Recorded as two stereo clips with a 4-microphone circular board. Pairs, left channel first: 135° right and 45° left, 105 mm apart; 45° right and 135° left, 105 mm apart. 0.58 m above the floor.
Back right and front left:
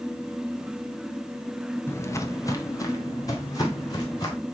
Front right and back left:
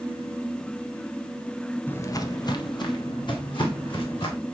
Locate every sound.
1.9 s footsteps: 95° right, 0.5 m; by 4.3 s 80° right, 3 m